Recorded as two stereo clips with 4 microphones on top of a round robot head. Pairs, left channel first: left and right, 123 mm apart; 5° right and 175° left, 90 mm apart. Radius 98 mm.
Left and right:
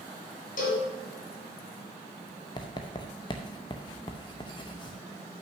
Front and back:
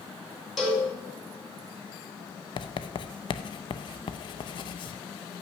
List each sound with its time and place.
0.6 s a cowbell: 80° left, 3.5 m
2.6 s writing: 25° left, 0.6 m